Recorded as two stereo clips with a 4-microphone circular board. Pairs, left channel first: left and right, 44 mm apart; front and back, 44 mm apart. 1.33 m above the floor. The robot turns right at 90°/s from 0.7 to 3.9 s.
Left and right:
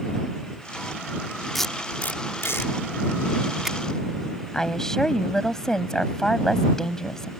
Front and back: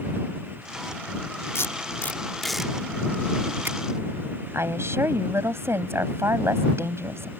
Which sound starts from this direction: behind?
A woman speaking, at 4.5 s.